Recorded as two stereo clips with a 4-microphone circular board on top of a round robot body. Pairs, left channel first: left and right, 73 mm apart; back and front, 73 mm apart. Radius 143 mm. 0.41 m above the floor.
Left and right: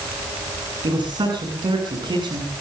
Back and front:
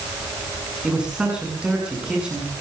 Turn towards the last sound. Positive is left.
turn(degrees=-80)